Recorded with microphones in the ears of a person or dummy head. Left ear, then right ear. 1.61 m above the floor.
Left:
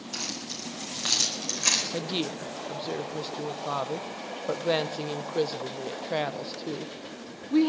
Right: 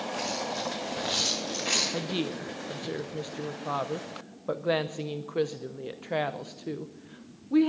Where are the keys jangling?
75° left (ahead or behind), 6 m; by 1.8 s 60° left (ahead or behind), 4.5 m.